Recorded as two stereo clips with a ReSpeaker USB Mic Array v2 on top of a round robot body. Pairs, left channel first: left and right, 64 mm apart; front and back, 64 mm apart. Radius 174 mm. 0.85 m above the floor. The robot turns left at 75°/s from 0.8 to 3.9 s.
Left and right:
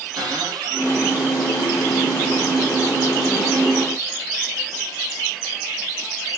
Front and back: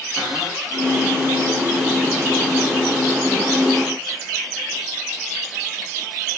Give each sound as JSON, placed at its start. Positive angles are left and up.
{"t": 0.2, "sound": "a cupboard door", "azimuth_deg": -100, "distance_m": 5.0}